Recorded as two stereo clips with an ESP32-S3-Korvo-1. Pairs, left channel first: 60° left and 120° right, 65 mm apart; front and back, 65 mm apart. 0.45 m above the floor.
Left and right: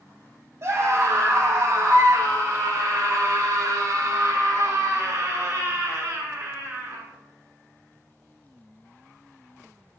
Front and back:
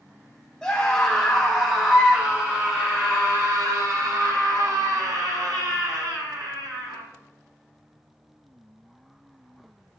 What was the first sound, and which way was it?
A scream, 85° right.